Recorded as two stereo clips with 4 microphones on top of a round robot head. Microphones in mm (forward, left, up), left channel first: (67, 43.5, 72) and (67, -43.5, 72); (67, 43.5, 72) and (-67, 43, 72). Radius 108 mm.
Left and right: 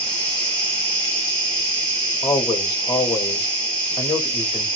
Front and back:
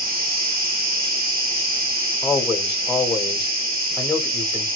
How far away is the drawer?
I don't hear a drawer.